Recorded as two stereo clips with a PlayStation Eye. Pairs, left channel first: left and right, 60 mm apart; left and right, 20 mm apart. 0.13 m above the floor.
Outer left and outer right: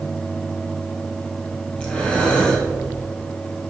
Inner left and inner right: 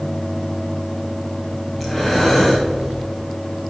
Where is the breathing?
15° left (ahead or behind), 2 m.